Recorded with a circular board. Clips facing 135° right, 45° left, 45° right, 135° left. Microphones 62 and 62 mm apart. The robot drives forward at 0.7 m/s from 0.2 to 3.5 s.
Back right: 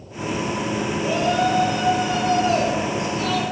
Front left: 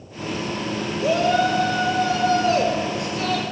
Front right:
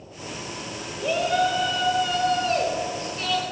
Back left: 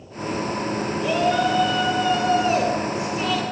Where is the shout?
40° left, 4.5 m; by 3.4 s 60° left, 3.5 m.